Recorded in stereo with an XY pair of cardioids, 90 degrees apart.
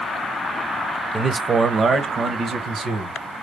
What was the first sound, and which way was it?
A man speaking, 30° right.